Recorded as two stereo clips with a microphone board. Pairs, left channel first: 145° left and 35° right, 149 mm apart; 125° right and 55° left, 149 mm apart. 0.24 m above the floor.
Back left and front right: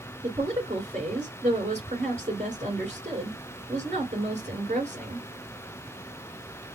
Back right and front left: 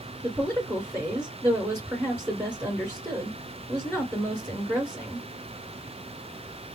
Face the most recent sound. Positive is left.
turn(degrees=-15)